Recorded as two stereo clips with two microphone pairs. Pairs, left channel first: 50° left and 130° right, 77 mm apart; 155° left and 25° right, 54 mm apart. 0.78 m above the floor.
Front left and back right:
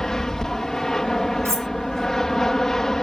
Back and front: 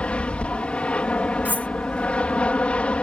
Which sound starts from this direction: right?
Cutlery clinking, at 1.4 s.